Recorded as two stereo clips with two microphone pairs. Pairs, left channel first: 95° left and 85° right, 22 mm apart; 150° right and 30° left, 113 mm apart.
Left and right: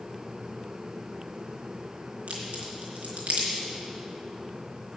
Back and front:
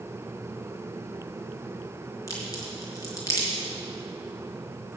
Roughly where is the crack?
Right.